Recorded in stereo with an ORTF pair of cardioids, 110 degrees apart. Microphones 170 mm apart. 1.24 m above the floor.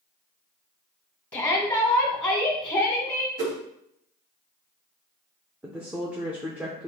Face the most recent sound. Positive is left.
turn(degrees=-10)